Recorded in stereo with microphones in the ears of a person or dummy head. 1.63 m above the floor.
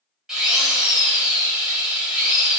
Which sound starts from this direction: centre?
A drill, at 0.3 s.